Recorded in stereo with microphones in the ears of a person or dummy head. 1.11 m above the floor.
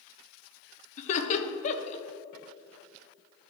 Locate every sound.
1.0 s laughter: 45° left (ahead or behind), 1.2 m